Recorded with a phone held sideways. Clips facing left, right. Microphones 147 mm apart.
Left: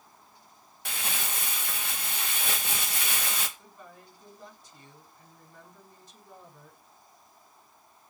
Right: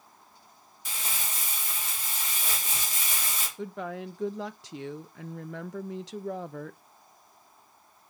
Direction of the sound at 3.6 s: 80° right.